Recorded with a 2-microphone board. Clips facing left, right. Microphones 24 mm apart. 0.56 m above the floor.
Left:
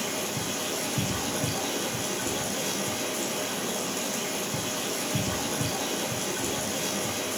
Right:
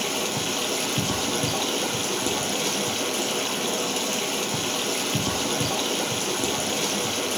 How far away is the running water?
About 4 m.